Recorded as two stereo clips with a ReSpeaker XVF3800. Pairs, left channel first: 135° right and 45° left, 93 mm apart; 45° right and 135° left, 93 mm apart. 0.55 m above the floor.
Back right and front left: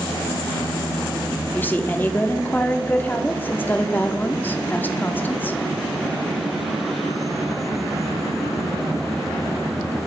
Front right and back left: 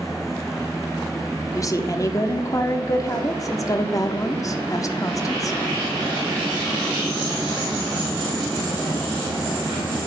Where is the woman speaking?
75° right, 0.8 m.